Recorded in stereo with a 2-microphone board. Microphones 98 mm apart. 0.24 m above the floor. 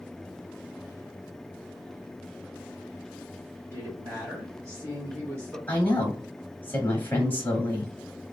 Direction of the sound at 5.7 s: 20° left (ahead or behind).